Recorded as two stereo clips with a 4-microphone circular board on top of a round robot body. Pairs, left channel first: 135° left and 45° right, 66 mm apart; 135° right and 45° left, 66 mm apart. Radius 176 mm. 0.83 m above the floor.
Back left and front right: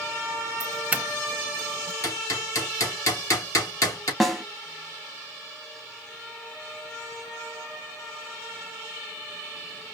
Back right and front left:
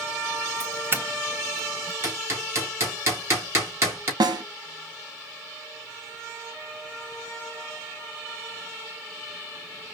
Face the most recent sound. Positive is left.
turn(degrees=45)